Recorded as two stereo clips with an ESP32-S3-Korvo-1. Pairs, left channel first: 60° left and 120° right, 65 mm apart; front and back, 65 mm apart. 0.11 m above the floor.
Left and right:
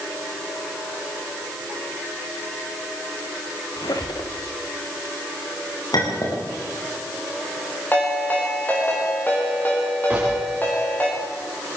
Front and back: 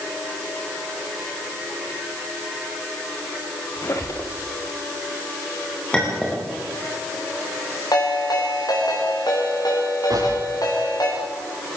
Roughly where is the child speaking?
I don't hear a child speaking.